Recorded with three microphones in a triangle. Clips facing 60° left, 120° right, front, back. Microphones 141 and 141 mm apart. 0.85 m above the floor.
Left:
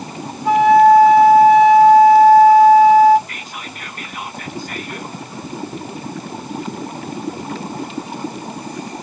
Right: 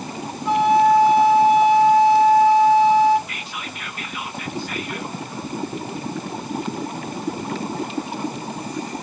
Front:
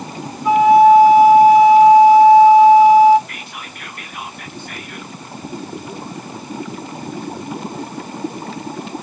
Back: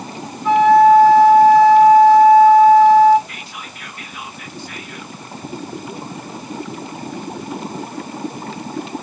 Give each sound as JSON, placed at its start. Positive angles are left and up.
{"t": 0.5, "sound": "a flute", "azimuth_deg": 75, "distance_m": 1.9}
{"t": 3.3, "sound": "whispering", "azimuth_deg": 20, "distance_m": 1.1}